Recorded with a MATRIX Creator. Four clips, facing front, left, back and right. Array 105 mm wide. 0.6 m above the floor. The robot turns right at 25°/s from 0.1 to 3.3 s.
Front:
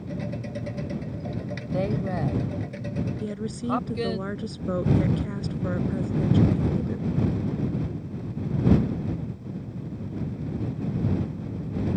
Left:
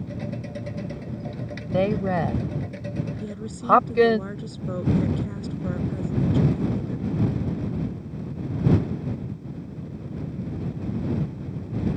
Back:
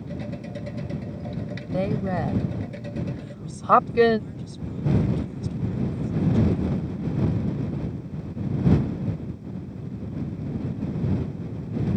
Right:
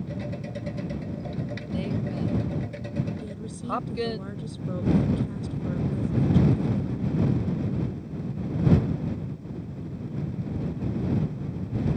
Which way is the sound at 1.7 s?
95° left.